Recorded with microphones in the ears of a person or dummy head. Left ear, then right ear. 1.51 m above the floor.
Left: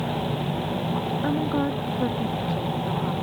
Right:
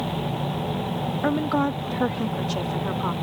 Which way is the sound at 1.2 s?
75° right (ahead or behind).